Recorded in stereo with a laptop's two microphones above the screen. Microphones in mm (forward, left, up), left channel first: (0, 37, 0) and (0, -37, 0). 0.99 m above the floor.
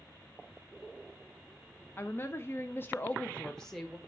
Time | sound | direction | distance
2.0 | a woman speaking | 30° left (ahead or behind) | 0.8 m